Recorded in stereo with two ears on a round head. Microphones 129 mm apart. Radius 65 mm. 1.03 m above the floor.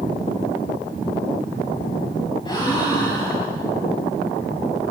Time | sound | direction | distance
2.5 | a gasp | 30° left (ahead or behind) | 8.5 m